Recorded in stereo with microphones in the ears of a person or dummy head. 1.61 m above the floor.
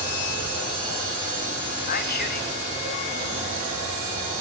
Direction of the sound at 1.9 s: 50° left (ahead or behind).